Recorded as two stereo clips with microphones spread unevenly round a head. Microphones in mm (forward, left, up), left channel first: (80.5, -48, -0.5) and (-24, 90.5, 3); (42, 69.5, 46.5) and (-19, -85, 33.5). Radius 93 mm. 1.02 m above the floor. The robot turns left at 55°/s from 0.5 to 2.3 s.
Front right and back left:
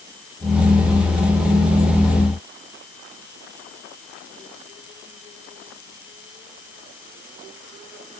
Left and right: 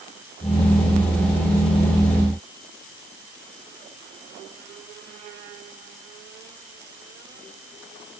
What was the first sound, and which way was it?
Only background noise.